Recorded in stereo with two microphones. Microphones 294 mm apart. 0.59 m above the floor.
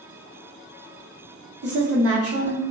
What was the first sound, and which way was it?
A woman speaking, 55° right (ahead or behind).